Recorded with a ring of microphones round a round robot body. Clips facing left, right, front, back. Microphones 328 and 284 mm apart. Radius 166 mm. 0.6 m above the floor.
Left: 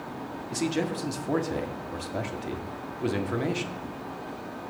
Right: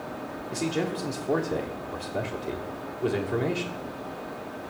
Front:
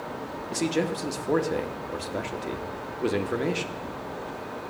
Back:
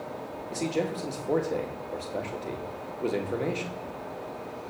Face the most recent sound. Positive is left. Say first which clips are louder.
# even, front 3 dB
turn(degrees=60)